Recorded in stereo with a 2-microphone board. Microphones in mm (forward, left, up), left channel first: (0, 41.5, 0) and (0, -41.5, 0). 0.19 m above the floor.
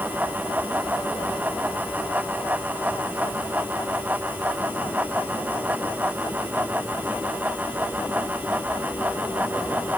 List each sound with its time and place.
Only background noise.